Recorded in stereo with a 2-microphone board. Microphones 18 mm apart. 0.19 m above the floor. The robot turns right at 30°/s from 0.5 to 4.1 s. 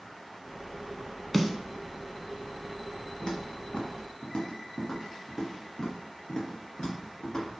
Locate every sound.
1.3 s a snare drum: 5° left (ahead or behind), 0.6 m; by 1.5 s 10° left (ahead or behind), 0.6 m
3.2 s footsteps: 35° left (ahead or behind), 1.8 m; by 7.5 s 55° left (ahead or behind), 4 m